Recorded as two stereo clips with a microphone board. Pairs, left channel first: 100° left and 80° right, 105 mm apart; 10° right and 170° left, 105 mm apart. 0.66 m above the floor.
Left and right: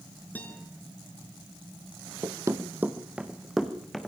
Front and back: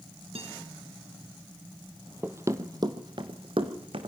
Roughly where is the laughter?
I don't hear laughter.